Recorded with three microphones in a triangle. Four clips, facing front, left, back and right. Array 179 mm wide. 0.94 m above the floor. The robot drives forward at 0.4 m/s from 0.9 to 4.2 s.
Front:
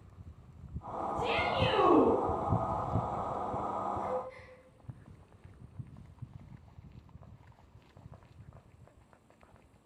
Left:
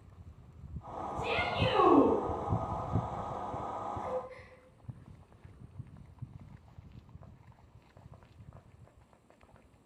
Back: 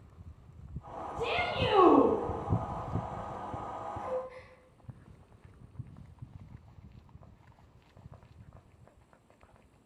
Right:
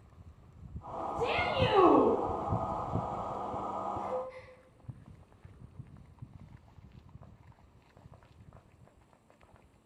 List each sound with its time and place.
1.1 s a shout: 145° right, 3 m
4.0 s a gasp: 170° right, 8 m